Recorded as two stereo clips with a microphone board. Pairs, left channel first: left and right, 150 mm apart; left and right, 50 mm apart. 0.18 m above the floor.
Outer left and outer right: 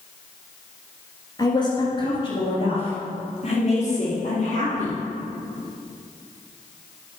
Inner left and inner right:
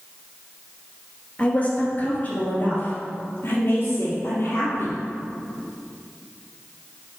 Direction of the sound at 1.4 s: 25° left (ahead or behind).